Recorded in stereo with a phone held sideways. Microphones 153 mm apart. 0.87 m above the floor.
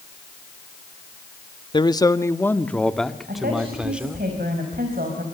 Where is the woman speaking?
75° right (ahead or behind), 5 m.